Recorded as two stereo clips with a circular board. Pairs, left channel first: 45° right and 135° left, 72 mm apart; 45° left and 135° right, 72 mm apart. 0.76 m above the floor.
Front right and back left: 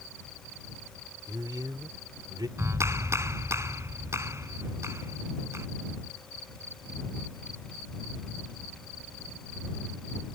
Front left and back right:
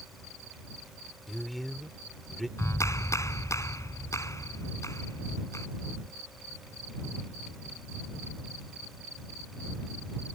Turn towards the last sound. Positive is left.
turn(degrees=90)